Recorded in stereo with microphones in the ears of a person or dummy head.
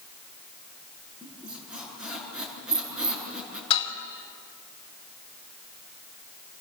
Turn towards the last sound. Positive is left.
turn(degrees=35)  # may be behind; listen again after turning